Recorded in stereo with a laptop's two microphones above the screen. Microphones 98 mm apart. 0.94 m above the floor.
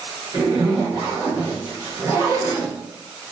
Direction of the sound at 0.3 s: 30° right (ahead or behind).